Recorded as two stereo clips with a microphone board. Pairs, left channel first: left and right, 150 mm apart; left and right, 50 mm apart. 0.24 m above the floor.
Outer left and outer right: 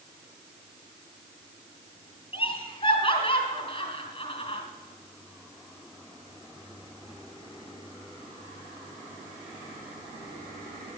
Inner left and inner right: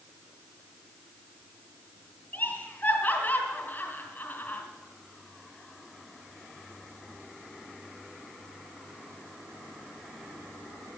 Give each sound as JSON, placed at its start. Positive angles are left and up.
{"t": 2.3, "sound": "laughter", "side_deg": 40, "distance_m": 2.5}